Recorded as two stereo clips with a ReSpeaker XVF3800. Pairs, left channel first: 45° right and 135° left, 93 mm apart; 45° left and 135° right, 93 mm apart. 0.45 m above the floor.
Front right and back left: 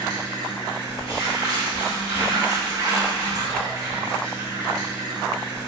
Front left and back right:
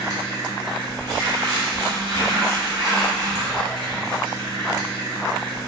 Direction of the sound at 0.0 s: 175° right.